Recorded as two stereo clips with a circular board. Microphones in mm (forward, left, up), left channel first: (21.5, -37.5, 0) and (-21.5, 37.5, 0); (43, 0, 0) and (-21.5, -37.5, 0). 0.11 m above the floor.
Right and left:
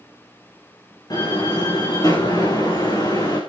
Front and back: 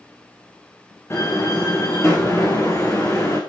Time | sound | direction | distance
1.1 | a door slam | 20° right | 8 m